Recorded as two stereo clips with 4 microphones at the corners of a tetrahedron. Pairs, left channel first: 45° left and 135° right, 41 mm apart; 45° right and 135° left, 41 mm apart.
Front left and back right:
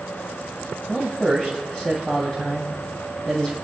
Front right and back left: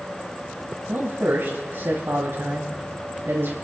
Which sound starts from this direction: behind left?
A man speaking, at 0.9 s.